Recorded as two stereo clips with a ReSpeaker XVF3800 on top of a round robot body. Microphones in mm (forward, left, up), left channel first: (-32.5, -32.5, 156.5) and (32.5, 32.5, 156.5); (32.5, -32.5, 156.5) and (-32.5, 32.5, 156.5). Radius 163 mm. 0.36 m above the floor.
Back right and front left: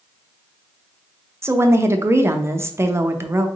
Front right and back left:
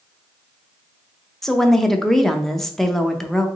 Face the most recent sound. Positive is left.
turn(degrees=40)